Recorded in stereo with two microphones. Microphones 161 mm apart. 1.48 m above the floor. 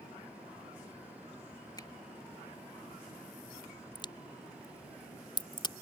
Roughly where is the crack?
Left.